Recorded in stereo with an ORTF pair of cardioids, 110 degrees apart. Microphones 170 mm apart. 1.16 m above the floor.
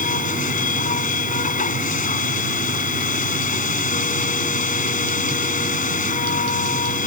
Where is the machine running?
50° left.